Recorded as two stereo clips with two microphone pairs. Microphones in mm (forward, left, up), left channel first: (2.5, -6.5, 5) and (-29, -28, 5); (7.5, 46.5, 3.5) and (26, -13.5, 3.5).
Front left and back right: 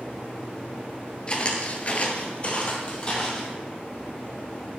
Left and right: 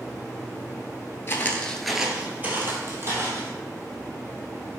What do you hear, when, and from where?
1.3 s footsteps: 85° left, 0.6 m; by 3.5 s 30° right, 1.4 m